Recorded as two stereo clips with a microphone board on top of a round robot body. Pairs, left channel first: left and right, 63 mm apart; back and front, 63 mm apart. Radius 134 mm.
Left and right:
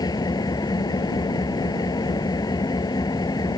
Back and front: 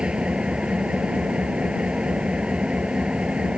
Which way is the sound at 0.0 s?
75° left.